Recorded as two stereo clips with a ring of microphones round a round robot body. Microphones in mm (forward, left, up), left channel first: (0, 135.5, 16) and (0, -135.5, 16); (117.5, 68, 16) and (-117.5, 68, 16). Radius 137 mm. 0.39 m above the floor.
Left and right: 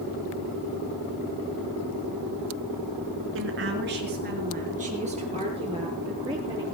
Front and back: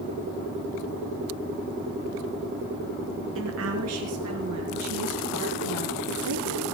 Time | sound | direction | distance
3.4 | a woman speaking | 135° right | 5 m